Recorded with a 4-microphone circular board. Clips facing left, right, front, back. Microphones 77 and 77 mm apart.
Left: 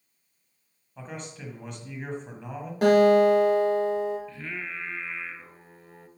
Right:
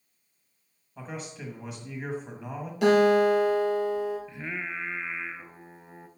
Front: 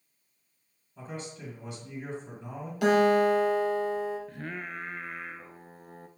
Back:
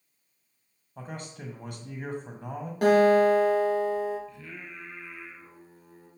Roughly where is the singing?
Ahead.